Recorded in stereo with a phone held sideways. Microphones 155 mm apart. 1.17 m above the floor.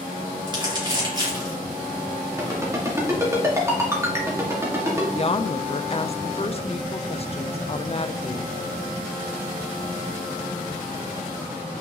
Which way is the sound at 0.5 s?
30° right (ahead or behind).